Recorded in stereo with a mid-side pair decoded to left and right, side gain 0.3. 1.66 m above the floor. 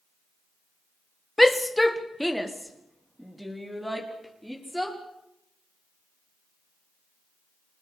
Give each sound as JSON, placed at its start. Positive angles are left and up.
{"t": 1.4, "sound": "a shout", "azimuth_deg": 10, "distance_m": 1.3}